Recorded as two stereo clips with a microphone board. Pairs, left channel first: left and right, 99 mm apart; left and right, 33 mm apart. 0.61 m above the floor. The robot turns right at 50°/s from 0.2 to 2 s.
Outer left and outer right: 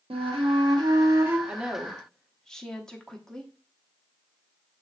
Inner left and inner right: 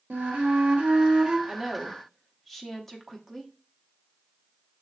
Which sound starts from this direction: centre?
A woman speaking, at 1.5 s.